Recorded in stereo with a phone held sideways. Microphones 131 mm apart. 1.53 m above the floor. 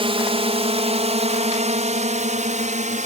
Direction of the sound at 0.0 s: 45° right (ahead or behind).